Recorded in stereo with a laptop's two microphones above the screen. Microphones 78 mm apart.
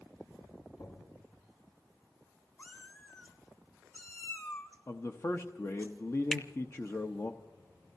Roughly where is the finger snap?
Centre.